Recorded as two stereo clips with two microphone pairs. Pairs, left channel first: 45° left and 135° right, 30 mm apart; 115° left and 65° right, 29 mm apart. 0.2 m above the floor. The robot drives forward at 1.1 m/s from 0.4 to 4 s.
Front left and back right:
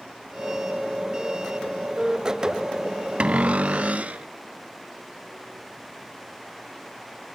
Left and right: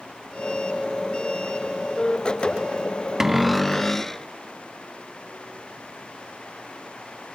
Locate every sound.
3.2 s a cupboard door: 135° right, 0.6 m; by 4.2 s 165° right, 1.2 m